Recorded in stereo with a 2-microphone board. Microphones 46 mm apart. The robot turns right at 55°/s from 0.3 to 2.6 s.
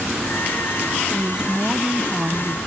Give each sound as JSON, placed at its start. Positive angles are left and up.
{"t": 1.1, "sound": "a woman speaking", "side_deg": 0}